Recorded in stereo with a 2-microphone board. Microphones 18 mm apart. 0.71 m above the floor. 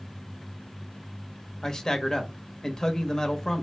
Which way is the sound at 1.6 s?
35° left (ahead or behind).